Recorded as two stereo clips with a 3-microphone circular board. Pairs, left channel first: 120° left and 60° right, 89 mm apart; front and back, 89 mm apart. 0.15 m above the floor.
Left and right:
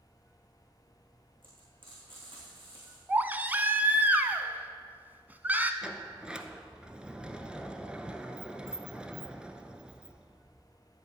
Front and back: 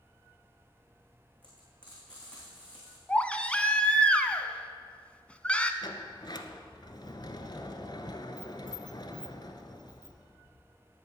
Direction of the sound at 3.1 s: 50° right.